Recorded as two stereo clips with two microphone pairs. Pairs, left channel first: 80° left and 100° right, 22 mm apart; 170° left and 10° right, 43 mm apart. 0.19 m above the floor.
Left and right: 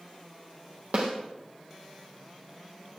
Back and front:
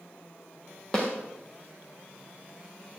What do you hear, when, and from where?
0.9 s a snare drum: 115° right, 5 m